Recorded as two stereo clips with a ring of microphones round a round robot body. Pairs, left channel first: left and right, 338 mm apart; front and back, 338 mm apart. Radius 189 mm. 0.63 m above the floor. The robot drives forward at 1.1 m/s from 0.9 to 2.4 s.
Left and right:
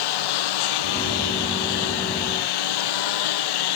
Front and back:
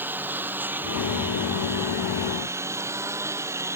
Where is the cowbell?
I don't hear a cowbell.